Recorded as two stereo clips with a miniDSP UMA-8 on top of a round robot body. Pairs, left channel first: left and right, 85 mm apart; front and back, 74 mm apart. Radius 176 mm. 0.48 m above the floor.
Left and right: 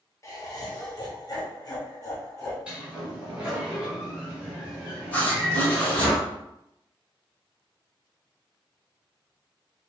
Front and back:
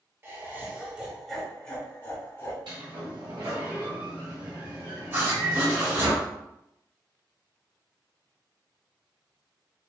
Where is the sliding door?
165° right, 1.4 m.